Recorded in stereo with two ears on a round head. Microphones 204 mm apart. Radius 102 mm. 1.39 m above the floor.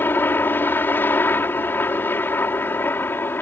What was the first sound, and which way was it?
A helicopter, 10° left (ahead or behind).